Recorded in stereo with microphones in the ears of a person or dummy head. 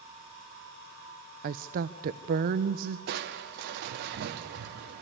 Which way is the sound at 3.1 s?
60° right (ahead or behind).